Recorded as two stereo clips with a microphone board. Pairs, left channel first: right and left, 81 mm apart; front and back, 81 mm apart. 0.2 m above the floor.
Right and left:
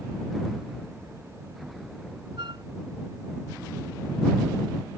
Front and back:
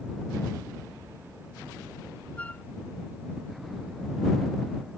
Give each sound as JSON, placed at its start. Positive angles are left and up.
{"t": 2.4, "sound": "a flute", "azimuth_deg": 75}